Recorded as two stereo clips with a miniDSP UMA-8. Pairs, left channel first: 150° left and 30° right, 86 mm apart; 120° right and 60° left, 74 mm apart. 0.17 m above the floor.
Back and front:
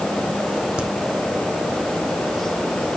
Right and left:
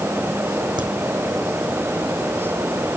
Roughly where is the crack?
Ahead left.